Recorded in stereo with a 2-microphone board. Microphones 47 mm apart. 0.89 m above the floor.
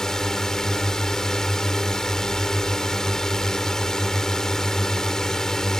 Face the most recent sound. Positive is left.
turn(degrees=10)  # may be behind; listen again after turning